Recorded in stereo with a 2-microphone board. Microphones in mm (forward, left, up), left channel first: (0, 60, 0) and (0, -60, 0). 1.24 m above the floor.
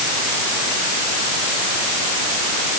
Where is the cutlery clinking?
I don't hear cutlery clinking.